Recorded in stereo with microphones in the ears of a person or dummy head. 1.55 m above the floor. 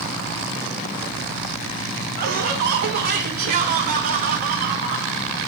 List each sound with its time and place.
2.2 s laughter: 55° right (ahead or behind), 3 m; by 5.1 s 45° right (ahead or behind), 4.5 m